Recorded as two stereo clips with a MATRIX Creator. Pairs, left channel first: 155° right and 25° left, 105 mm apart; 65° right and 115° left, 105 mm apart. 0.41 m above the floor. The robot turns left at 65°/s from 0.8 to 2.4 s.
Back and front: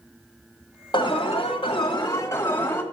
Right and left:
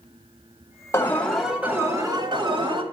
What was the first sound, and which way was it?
An alarm, 130° right.